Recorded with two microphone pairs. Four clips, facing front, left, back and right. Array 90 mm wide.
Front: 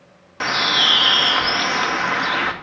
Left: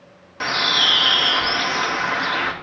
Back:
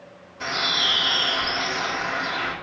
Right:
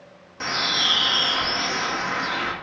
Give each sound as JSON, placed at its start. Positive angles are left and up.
{"t": 0.4, "sound": "a bird", "azimuth_deg": 20, "distance_m": 1.4}